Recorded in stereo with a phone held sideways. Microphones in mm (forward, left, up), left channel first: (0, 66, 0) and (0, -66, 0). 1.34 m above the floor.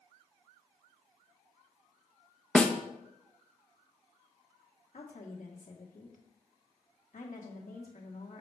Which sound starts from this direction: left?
A woman speaking, at 4.9 s.